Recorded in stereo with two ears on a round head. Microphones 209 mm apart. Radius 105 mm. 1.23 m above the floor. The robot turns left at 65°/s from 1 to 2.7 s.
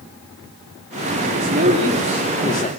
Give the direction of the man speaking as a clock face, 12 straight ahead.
4 o'clock.